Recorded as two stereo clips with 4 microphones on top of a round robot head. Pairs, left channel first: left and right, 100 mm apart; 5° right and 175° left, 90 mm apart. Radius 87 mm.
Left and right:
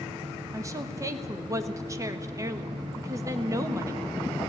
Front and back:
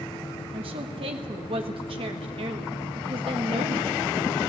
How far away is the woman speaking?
About 1.3 m.